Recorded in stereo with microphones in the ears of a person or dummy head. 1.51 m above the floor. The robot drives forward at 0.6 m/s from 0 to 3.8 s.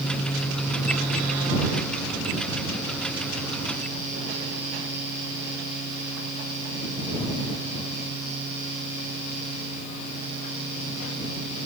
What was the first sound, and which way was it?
Only background noise.